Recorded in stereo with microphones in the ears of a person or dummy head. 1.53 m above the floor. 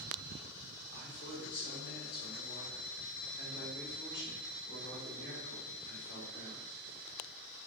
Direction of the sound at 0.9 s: 65° left (ahead or behind).